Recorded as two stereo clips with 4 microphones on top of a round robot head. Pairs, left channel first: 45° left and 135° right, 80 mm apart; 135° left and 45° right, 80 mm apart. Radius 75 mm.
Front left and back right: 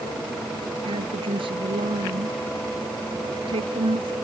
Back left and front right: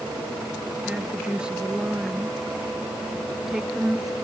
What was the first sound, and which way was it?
A woman speaking, 120° right.